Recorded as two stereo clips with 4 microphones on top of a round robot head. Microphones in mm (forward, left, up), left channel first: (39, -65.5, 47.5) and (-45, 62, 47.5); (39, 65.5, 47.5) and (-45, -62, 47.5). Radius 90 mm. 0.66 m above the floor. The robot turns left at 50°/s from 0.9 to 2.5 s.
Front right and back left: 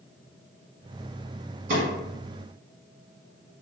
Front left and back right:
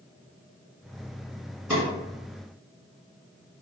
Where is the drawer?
150° left, 1.6 m; by 1.8 s 145° left, 1.6 m.